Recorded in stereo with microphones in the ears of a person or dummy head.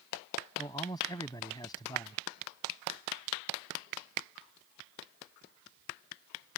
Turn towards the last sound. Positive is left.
turn(degrees=15)  # may be behind; listen again after turning